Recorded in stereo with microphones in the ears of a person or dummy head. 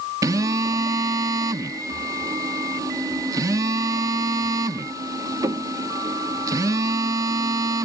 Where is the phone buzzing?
15° right (ahead or behind).